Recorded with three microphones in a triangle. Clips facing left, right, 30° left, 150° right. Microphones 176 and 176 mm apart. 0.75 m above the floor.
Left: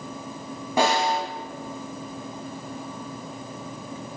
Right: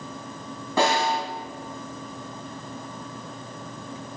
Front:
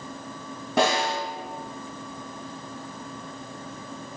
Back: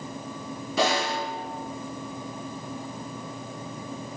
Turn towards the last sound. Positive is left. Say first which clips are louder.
# even, front 2 dB
turn(degrees=15)